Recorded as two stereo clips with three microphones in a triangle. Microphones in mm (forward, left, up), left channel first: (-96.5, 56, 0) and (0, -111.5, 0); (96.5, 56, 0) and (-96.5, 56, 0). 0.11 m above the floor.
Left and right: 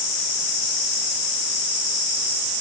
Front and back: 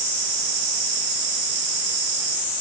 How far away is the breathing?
I don't hear breathing.